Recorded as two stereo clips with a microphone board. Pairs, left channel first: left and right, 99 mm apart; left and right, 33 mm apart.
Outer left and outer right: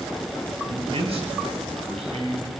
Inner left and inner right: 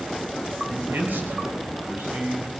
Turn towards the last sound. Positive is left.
turn(degrees=-85)